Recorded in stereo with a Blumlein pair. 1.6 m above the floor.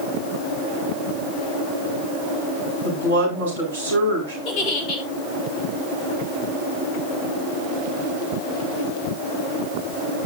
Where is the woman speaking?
70° right, 8 m.